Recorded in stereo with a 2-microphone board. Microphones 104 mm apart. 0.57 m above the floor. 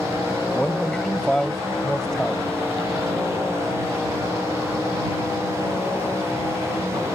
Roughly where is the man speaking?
Centre.